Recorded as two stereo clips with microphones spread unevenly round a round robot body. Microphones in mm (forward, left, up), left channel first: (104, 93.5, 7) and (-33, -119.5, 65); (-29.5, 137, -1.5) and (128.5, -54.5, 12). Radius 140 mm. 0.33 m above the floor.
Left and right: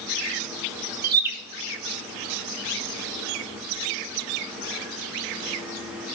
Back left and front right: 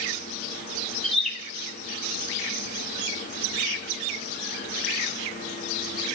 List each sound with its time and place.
1.0 s a bird: 155° right, 1.0 m